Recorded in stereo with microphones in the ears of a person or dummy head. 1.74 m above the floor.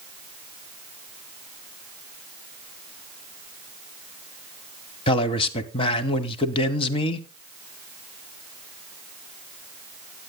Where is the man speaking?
35° left (ahead or behind), 1.2 m.